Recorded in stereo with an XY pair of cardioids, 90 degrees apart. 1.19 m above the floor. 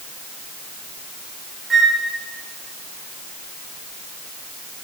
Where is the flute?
40° right, 8.5 m.